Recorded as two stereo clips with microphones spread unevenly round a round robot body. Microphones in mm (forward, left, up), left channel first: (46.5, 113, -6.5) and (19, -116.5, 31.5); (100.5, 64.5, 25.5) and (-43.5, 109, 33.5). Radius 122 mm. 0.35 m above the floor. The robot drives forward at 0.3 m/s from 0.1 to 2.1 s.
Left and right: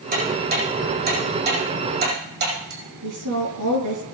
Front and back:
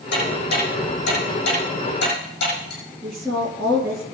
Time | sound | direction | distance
0.1 | ticking | 45° right | 9.5 m
3.0 | a woman speaking | 110° right | 6.5 m